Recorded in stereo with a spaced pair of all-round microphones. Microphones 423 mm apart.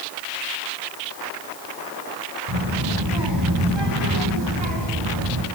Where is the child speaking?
75° right (ahead or behind), 7 m; by 5.5 s 85° right, 6 m.